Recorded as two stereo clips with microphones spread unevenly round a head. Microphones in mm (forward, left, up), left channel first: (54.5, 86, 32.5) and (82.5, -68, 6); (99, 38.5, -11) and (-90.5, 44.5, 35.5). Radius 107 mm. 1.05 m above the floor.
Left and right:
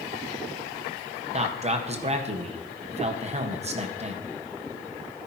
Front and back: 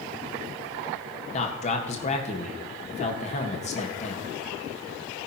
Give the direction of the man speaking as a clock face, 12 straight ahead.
2 o'clock.